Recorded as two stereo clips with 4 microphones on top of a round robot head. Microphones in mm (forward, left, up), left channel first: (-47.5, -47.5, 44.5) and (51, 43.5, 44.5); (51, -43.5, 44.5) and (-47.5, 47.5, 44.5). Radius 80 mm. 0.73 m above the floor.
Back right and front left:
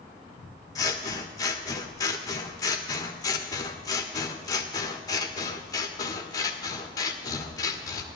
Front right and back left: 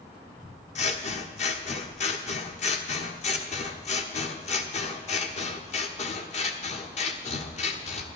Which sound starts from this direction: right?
Scissors, at 0.8 s.